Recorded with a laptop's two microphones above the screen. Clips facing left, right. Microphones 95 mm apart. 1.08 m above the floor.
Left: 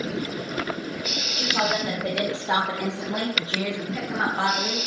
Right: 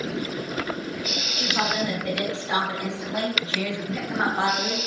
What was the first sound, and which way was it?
A woman speaking, 65° left (ahead or behind).